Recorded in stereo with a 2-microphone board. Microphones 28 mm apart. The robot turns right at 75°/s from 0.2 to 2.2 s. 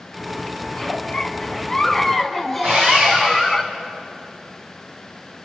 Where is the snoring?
I don't hear snoring.